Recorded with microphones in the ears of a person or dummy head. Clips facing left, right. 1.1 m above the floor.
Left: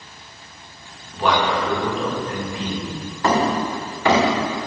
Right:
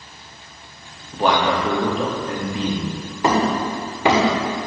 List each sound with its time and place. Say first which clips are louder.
1.1 s a man speaking: right 1 dB; 35° right (ahead or behind), 1.8 m
3.2 s hammering: right 1 dB; 15° right (ahead or behind), 1.8 m